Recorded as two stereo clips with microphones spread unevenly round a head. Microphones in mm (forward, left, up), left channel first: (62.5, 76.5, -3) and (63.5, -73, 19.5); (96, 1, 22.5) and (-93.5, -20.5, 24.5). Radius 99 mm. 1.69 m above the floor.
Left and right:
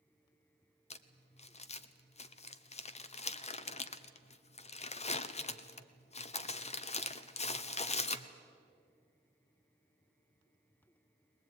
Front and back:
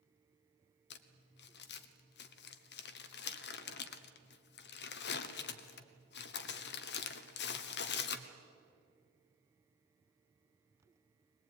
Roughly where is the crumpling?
Ahead left.